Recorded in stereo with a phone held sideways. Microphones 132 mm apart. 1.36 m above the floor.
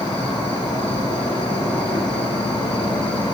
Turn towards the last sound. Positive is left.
turn(degrees=35)  # may be behind; listen again after turning